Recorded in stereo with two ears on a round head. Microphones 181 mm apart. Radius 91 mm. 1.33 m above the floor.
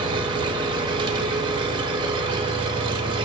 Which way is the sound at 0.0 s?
25° right (ahead or behind).